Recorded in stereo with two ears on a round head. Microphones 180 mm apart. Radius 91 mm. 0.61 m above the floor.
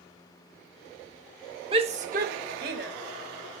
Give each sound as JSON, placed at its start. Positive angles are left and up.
{"t": 1.7, "sound": "a shout", "side_deg": -25, "distance_m": 1.2}